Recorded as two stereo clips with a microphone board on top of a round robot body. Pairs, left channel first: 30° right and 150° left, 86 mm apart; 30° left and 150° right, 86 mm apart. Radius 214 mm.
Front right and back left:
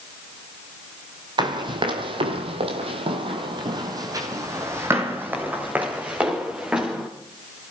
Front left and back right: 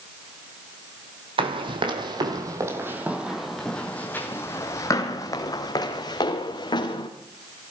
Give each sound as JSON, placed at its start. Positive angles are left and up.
{"t": 1.4, "sound": "running footsteps", "azimuth_deg": -175, "distance_m": 2.0}